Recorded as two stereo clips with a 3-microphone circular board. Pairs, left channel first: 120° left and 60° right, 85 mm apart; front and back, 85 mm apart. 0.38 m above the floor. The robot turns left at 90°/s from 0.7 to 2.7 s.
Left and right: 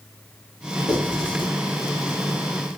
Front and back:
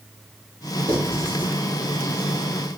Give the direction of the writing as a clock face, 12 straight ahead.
7 o'clock.